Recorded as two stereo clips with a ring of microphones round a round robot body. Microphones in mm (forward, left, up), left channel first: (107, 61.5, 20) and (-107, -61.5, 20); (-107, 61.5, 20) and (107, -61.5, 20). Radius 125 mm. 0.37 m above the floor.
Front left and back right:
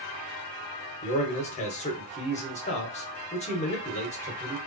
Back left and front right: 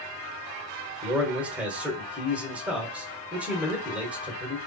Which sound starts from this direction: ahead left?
A man speaking, at 1.0 s.